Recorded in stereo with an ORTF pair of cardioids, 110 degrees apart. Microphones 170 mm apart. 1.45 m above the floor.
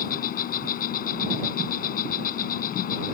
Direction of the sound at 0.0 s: 60° left.